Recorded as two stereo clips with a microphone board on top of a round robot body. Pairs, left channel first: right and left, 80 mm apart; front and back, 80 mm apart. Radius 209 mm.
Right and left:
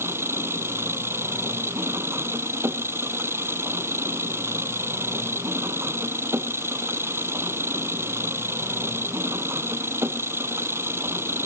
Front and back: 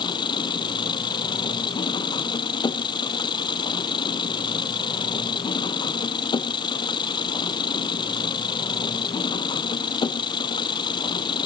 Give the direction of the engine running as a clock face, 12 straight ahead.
11 o'clock.